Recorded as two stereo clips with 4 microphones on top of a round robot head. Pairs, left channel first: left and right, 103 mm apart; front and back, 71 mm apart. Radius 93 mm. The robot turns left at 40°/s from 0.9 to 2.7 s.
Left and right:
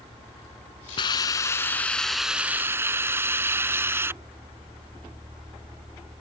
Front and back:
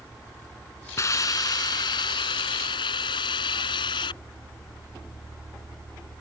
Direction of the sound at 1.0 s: 50° left.